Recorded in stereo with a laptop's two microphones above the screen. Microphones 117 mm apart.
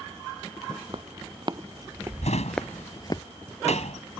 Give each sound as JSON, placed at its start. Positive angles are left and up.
{"t": 0.9, "sound": "footsteps", "side_deg": -45}
{"t": 2.2, "sound": "a drawer", "side_deg": 75}